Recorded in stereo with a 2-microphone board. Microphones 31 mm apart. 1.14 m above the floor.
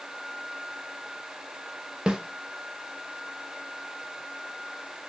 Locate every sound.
2.1 s a snare drum: 25° right (ahead or behind), 0.5 m